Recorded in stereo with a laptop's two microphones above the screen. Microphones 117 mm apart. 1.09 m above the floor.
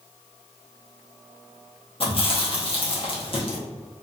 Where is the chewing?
50° left (ahead or behind), 0.7 m.